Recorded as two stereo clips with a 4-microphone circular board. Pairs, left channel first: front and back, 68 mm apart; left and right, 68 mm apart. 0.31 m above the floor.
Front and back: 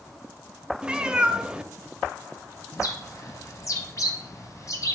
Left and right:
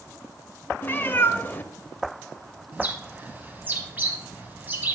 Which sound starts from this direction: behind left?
A cat meowing, at 0.8 s.